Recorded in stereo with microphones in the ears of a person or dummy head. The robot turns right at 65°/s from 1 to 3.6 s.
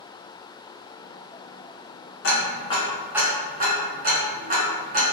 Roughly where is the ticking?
Left.